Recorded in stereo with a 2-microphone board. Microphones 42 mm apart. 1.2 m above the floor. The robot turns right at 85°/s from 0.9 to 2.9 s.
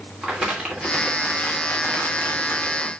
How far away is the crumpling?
About 2.5 m.